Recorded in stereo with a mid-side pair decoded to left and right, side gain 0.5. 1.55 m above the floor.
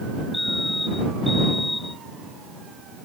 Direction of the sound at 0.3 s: 15° left.